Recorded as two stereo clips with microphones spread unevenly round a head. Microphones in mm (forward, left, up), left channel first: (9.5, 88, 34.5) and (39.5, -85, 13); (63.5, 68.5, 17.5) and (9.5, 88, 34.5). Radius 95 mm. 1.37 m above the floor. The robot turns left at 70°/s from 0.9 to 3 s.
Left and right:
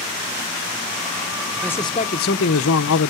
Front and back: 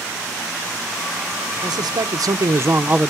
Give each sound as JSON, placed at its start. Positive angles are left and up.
{"t": 1.6, "sound": "a man speaking", "azimuth_deg": -175, "distance_m": 0.9}